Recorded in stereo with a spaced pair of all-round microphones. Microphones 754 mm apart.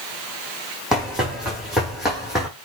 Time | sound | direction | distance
0.9 | running footsteps | centre (ahead or behind) | 5.5 m